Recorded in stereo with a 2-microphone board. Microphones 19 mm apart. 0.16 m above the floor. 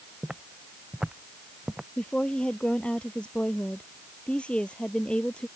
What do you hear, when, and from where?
0.2 s footsteps: 40° right (ahead or behind); by 1.9 s 35° right (ahead or behind)
2.0 s a woman speaking: 65° left (ahead or behind)